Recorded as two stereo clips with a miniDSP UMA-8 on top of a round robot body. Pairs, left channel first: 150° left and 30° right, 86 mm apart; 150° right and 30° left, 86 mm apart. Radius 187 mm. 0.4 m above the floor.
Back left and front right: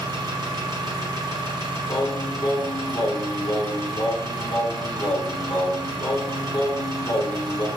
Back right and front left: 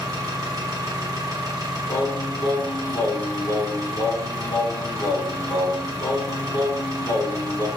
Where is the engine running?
10° right, 1.0 m.